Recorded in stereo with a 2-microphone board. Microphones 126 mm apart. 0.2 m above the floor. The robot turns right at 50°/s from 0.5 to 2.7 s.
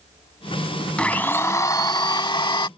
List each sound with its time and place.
1.0 s a blender: 15° left; by 2.7 s 100° left